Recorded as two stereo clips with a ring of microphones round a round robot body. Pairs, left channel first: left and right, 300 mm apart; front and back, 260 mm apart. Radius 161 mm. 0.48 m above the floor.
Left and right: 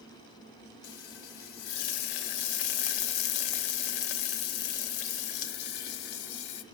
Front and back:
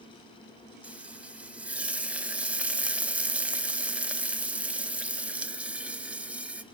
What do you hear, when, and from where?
0.8 s frying: 95° left, 0.7 m